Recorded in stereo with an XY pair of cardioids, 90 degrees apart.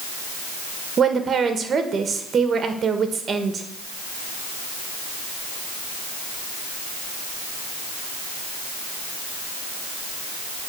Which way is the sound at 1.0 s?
55° right.